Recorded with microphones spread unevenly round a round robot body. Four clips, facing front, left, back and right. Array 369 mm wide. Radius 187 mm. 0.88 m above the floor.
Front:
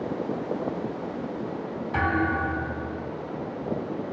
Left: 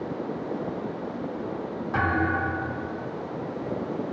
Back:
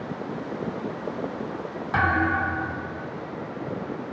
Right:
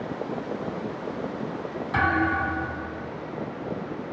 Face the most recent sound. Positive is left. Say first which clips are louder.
# right 2 dB, back 2 dB
turn(degrees=-175)